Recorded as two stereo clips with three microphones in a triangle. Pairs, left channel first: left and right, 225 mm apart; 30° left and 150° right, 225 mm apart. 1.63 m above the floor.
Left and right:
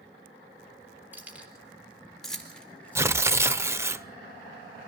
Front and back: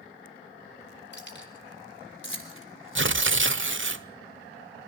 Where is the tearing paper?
170° right, 0.7 m.